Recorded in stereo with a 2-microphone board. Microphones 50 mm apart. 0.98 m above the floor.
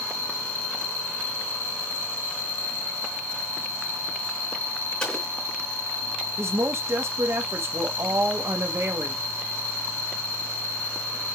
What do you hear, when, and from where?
0.0 s an insect: 35° left (ahead or behind), 4 m
5.0 s an explosion: 20° left (ahead or behind), 4 m
6.4 s a woman speaking: 65° right (ahead or behind), 1.6 m